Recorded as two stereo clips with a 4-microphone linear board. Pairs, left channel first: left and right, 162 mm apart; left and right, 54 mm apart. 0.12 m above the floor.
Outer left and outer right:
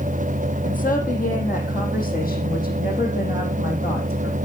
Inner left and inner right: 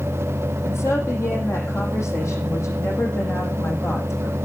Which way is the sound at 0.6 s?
55° left (ahead or behind).